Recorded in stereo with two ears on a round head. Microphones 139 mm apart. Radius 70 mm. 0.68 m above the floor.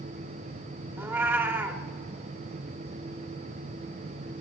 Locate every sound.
1.0 s a cat meowing: 15° right (ahead or behind), 1.0 m